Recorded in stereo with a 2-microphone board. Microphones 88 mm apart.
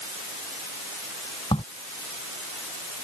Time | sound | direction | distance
1.5 | a crack | 75° left (ahead or behind) | ?